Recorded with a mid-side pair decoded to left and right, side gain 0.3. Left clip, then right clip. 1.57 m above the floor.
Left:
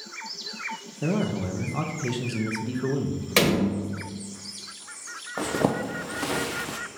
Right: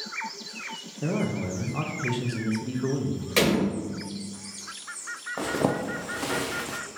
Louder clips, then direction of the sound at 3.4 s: Left 1 dB; 50° left.